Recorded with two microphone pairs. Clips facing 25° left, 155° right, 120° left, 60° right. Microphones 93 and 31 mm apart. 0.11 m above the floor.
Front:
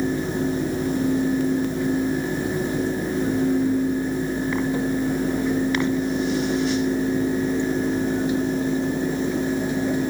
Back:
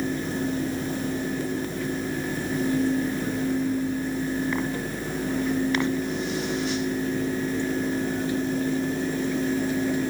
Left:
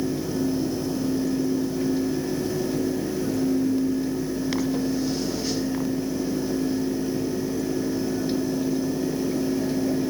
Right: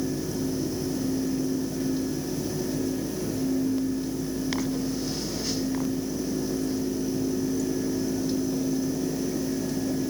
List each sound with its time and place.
Only background noise.